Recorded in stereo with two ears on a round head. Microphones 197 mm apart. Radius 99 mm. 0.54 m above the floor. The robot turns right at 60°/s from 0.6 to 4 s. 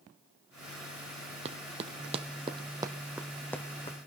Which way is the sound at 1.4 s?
30° right (ahead or behind).